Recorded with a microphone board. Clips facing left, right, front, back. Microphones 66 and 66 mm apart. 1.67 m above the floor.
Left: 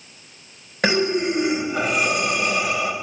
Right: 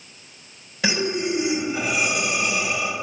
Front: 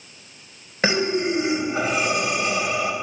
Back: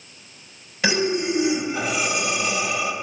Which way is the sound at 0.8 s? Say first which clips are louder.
Left 4 dB, front 1 dB; 50° left.